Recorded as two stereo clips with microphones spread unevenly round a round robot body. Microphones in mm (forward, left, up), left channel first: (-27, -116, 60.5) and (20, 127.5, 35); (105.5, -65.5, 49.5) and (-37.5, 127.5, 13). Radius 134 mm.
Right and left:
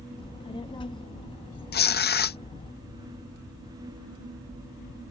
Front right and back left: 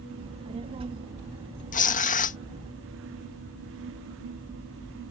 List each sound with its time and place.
0.2 s a child speaking: 175° right
1.7 s tearing paper: 95° right